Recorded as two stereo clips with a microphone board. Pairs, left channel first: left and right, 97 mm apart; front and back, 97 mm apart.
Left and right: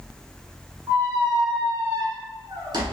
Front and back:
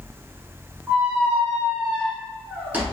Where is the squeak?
110° right, 0.8 m.